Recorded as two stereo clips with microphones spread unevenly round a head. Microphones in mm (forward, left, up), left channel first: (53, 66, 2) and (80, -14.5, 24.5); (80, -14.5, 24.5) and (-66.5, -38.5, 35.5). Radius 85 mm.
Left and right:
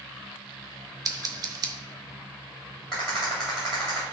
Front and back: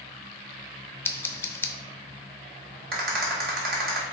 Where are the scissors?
65° right, 0.7 m.